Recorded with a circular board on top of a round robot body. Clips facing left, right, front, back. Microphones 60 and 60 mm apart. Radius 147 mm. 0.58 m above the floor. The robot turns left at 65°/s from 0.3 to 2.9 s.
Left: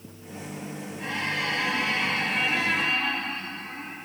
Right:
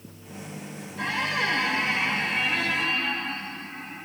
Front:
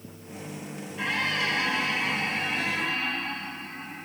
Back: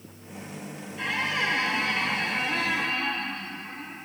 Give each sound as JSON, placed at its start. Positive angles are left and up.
{"t": 1.0, "sound": "a squeak", "azimuth_deg": -85, "distance_m": 0.7}